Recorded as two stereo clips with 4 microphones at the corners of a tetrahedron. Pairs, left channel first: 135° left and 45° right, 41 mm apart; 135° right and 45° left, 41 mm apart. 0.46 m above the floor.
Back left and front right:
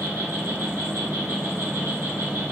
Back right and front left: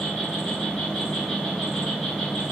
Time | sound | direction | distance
0.0 | an insect | 55° right | 1.3 m